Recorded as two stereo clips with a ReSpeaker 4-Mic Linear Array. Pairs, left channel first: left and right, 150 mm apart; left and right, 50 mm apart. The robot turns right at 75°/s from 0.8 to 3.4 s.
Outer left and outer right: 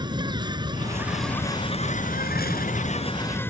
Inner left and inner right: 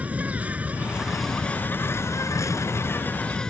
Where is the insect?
30° right; by 3.5 s 165° left.